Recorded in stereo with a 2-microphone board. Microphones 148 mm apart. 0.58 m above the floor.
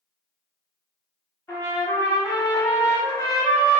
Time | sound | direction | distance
1.5 | a trumpet | 20° left (ahead or behind) | 0.8 m